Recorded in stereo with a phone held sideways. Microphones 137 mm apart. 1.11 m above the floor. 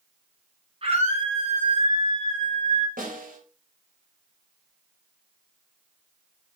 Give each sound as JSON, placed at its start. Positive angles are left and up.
{"t": 0.8, "sound": "a scream", "side_deg": -45, "distance_m": 6.5}
{"t": 3.0, "sound": "a snare drum", "side_deg": -85, "distance_m": 5.5}